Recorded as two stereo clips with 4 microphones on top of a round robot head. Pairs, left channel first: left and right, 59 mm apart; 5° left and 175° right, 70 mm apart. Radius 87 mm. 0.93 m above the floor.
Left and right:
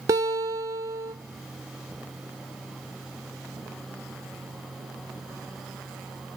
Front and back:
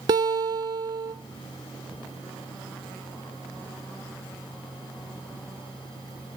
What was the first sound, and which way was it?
A guitar, 135° right.